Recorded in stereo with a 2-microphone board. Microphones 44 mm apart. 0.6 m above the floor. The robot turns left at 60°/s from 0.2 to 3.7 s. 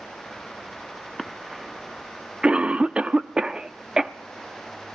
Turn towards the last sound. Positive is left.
turn(degrees=-15)  # may be behind; listen again after turning